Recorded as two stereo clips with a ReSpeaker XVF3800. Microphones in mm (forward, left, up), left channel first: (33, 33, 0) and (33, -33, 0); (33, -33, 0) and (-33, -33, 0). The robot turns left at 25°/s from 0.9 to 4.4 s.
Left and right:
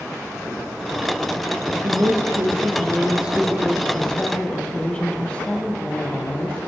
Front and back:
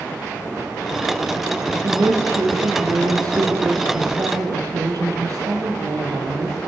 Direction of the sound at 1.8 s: 135° right.